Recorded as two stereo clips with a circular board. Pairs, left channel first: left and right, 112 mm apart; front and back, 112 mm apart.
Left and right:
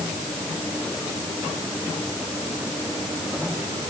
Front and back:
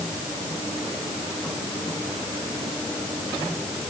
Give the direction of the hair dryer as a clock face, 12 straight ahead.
No hair dryer in this recording.